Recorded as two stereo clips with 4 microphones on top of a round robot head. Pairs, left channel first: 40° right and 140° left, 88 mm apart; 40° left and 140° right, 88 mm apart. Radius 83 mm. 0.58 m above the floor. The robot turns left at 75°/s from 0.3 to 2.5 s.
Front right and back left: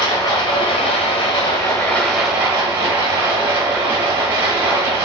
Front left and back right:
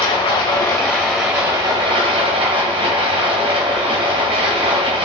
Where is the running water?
10° left, 1.7 m; by 5.0 s 155° right, 1.7 m.